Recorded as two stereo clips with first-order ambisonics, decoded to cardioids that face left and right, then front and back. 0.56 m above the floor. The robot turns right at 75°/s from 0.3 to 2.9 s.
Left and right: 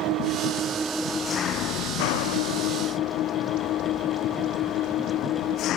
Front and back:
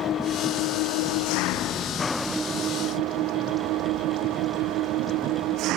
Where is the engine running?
55° right; by 5.8 s 140° left.